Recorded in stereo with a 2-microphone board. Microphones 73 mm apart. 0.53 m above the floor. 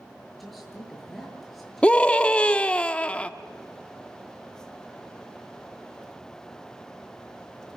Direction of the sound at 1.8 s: 15° left (ahead or behind).